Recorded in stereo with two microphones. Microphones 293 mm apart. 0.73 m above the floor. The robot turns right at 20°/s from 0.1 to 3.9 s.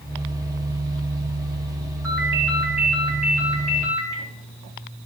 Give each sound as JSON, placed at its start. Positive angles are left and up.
{"t": 2.0, "sound": "a ringtone", "azimuth_deg": 40, "distance_m": 3.0}